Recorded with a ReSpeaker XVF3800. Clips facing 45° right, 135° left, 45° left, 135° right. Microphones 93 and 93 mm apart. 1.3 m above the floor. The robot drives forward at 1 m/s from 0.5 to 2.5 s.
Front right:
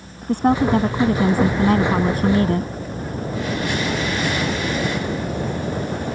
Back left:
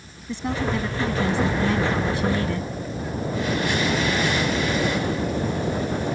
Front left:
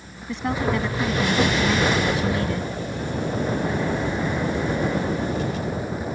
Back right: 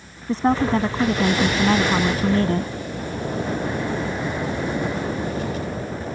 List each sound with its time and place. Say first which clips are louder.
0.3 s a woman speaking: front right 9 dB, back right 5 dB; 80° right; by 2.7 s 90° right